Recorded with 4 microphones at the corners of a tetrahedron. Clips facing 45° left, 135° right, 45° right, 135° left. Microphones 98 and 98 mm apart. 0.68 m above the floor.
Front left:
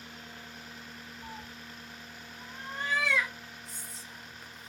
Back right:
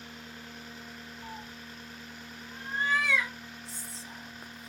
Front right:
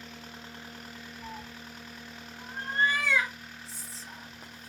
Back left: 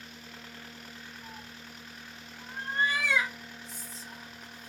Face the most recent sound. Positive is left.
turn(degrees=-85)